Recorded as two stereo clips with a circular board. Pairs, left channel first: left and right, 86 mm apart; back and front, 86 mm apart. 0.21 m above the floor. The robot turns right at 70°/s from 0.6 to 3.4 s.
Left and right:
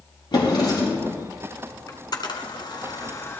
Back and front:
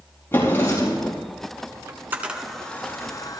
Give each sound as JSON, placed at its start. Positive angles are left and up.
{"t": 0.3, "sound": "a drawer", "azimuth_deg": 120, "distance_m": 4.5}
{"t": 1.9, "sound": "a camera shutter", "azimuth_deg": 45, "distance_m": 1.3}